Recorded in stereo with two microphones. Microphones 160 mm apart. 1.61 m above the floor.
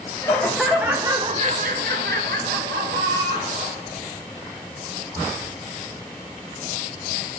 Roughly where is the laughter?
Centre.